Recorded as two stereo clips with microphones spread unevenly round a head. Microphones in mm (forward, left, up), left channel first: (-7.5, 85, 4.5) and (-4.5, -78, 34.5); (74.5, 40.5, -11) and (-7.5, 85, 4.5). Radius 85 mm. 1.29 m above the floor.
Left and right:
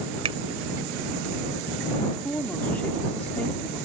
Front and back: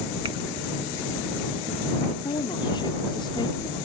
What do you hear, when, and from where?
0.2 s a finger snap: 145° right
2.1 s a woman speaking: 10° left